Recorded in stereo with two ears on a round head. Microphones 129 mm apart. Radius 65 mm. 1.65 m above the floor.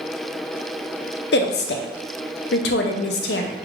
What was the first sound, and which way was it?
A woman speaking, 80° left.